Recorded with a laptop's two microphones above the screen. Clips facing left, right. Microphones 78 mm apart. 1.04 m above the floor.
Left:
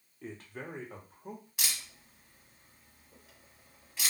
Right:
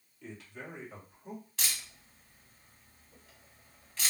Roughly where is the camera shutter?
Centre.